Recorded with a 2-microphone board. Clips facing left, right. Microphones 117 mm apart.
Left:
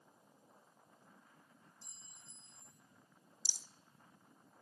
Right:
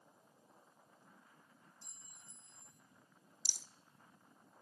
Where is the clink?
55° right (ahead or behind), 2.5 m.